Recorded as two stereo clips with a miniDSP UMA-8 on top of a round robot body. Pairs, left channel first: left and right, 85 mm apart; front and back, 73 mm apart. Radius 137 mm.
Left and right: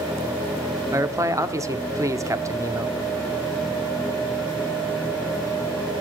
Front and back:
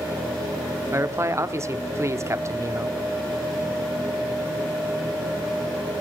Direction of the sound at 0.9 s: 135° right.